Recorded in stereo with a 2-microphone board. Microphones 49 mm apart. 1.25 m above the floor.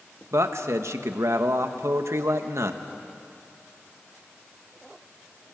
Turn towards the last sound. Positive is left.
turn(degrees=-75)  # may be behind; listen again after turning